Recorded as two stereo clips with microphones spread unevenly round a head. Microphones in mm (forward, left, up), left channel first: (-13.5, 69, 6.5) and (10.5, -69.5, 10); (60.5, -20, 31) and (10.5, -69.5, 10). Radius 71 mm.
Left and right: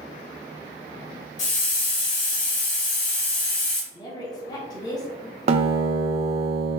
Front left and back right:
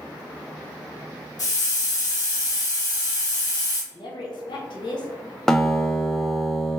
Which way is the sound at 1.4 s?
70° left.